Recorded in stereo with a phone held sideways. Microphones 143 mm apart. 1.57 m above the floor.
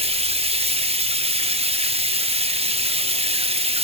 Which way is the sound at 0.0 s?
40° right (ahead or behind).